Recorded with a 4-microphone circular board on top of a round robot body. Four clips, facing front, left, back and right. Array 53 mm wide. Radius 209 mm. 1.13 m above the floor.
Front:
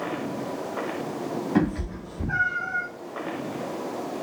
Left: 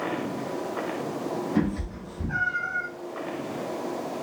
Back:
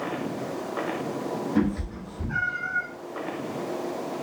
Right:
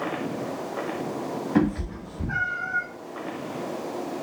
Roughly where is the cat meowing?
Ahead right.